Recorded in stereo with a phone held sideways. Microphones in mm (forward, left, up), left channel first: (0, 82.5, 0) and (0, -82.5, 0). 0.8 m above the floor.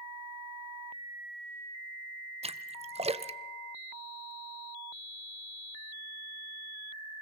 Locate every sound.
2.4 s a splash: 40° right (ahead or behind), 0.7 m